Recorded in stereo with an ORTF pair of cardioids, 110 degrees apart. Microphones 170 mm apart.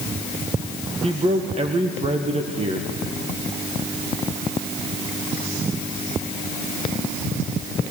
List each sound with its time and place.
1.0 s a man speaking: 40° right, 2 m